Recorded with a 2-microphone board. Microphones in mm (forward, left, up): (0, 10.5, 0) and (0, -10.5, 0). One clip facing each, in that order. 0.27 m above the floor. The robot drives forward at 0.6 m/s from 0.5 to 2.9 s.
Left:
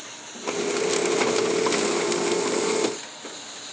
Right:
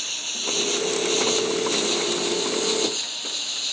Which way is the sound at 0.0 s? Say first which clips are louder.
Right 6 dB; 60° right (ahead or behind).